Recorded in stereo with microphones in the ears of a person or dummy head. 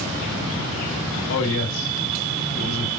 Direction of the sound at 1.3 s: 70° left (ahead or behind).